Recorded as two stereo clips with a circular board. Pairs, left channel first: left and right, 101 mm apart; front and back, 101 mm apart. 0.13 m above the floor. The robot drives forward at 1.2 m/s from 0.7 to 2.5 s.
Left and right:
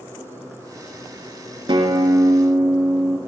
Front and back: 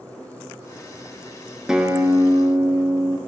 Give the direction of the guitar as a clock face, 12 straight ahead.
3 o'clock.